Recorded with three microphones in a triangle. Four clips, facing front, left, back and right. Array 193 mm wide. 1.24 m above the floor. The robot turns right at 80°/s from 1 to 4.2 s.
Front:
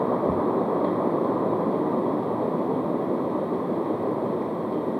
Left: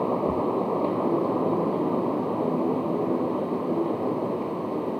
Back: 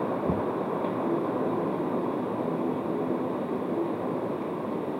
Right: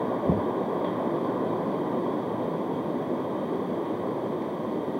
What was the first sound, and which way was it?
Knocking, 95° right.